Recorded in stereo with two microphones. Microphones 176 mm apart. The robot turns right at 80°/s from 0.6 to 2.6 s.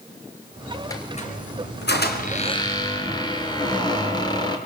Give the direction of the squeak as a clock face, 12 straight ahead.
11 o'clock.